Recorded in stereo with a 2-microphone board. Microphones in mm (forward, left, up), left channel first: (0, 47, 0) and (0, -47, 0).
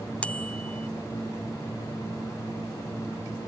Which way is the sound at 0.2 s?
15° left (ahead or behind).